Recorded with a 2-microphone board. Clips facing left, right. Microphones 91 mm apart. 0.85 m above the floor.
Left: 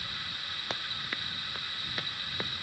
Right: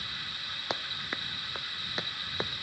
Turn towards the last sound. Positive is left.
turn(degrees=-20)  # may be behind; listen again after turning